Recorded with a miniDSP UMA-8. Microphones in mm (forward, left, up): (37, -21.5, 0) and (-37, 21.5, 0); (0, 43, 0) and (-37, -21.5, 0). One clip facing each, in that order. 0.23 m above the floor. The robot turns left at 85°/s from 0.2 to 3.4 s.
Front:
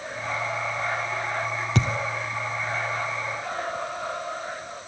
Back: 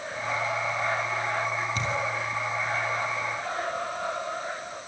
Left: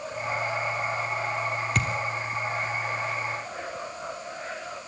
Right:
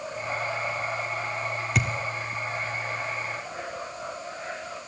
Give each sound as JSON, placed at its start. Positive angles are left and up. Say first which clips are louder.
{"t": 1.8, "sound": "a thud", "louder": "front 4 dB, right 2 dB", "azimuth_deg": -30, "distance_m": 2.0}